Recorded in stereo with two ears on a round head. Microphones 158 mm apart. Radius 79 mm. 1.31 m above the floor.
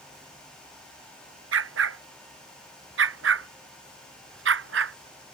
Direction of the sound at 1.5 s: 85° right.